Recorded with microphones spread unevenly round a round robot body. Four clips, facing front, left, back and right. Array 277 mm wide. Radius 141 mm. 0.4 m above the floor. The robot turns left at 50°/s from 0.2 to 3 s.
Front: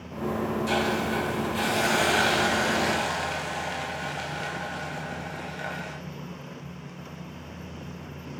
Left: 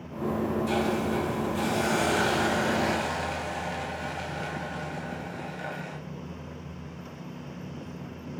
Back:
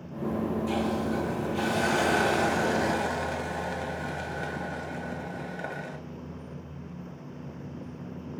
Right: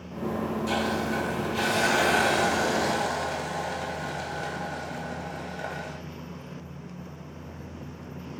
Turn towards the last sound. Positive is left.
turn(degrees=-160)